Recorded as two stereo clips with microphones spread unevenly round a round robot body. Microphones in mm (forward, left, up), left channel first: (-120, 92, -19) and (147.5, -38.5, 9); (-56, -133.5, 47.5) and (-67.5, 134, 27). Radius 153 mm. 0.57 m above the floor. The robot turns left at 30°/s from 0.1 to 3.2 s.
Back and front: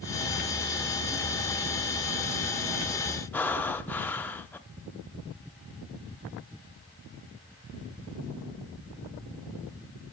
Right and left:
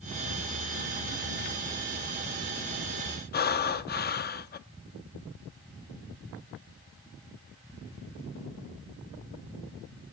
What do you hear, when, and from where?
3.3 s breathing: 130° right, 0.6 m